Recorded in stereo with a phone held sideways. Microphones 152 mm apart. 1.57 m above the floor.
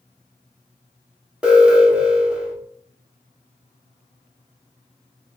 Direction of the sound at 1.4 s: 5° right (ahead or behind).